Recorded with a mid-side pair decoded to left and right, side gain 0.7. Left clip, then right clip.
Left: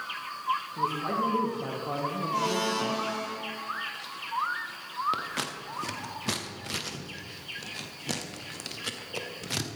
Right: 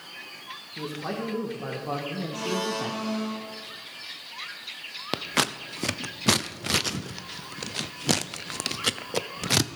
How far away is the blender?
About 2 m.